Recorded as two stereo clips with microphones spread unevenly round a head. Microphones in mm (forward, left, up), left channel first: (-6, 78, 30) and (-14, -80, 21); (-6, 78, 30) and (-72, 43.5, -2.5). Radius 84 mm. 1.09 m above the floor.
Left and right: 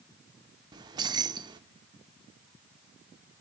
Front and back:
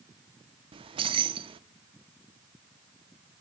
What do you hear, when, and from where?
0.7 s keys jangling: 160° right, 0.6 m